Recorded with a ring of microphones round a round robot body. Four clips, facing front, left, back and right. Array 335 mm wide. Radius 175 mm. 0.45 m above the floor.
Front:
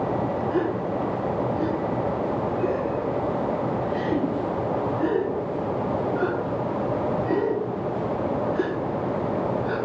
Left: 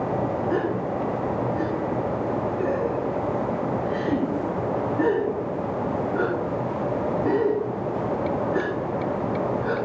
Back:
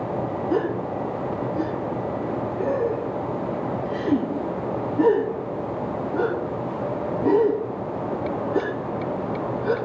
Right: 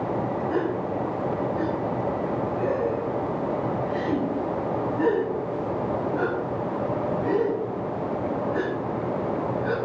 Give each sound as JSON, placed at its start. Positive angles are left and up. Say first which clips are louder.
{"t": 0.5, "sound": "a gasp", "louder": "left 1 dB, back 1 dB", "azimuth_deg": 155, "distance_m": 6.0}